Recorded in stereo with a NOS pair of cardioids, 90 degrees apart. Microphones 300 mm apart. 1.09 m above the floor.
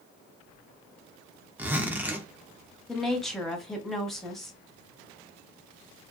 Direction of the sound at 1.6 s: 5° right.